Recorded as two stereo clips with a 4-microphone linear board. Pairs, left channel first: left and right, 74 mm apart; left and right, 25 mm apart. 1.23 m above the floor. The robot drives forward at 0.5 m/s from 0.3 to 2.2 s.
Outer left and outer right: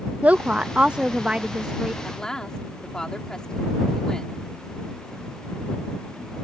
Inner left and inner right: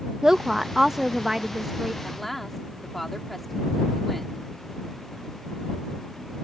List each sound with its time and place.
0.2 s a woman speaking: 20° right (ahead or behind); by 1.9 s 10° right (ahead or behind)
2.0 s a woman speaking: 10° left (ahead or behind)